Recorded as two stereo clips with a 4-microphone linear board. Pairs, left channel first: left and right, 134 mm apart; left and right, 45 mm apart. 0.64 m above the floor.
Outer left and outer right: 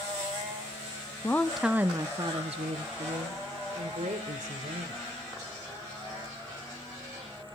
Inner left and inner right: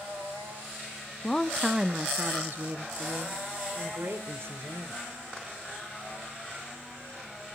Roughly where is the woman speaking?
Centre.